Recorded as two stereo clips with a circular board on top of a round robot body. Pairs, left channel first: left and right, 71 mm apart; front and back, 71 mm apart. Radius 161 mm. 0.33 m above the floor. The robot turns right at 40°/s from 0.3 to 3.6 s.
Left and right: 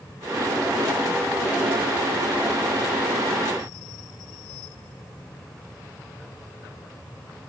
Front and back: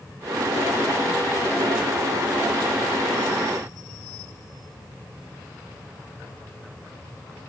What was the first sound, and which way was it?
Only background noise.